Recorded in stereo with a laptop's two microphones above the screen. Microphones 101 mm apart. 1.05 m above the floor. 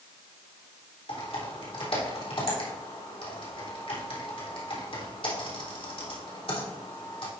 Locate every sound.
1.1 s typing on a keyboard: 70° left (ahead or behind), 3.5 m